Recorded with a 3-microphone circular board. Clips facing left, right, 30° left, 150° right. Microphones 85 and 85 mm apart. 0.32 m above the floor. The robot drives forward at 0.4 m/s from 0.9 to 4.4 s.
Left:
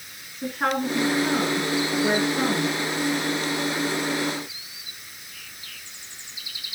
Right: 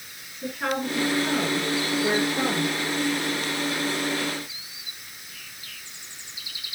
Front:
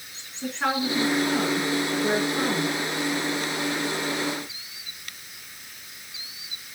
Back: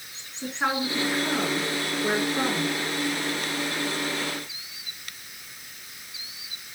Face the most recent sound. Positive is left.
turn(degrees=145)